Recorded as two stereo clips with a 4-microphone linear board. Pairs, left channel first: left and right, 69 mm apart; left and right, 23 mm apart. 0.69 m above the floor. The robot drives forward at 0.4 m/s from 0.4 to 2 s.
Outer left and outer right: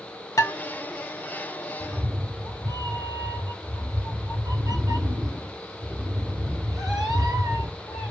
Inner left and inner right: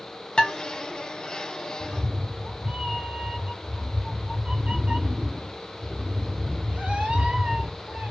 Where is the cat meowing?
85° right, 2.5 m.